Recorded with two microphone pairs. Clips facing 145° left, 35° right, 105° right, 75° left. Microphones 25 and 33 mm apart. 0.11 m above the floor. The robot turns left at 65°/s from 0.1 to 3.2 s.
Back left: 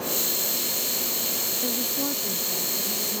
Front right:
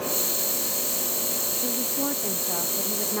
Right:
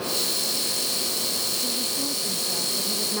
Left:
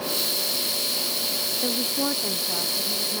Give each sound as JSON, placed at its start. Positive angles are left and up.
{"t": 1.6, "sound": "a woman speaking", "azimuth_deg": 70}